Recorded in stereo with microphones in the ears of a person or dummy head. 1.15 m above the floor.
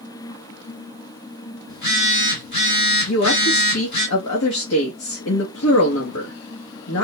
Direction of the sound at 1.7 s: 60° left (ahead or behind).